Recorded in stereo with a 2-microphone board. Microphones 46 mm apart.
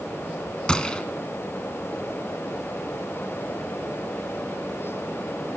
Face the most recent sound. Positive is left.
turn(degrees=15)  # may be behind; listen again after turning